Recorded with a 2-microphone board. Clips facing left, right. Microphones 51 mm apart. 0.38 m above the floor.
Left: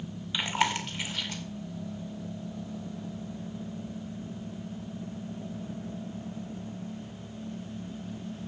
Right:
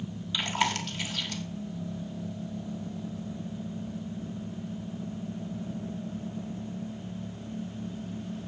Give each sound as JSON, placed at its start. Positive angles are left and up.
{"t": 0.3, "sound": "chewing", "side_deg": 20, "distance_m": 1.5}